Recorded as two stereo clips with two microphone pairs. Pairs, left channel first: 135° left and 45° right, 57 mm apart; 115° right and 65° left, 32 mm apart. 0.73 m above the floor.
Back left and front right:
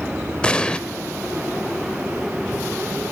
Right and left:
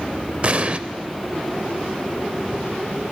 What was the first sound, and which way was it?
An explosion, 75° left.